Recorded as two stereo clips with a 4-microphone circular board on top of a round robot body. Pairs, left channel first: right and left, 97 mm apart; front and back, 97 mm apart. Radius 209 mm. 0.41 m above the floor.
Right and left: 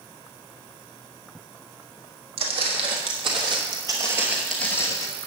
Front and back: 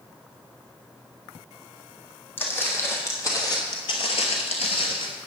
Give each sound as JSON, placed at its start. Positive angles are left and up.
{"t": 2.4, "sound": "footsteps", "azimuth_deg": 70, "distance_m": 1.9}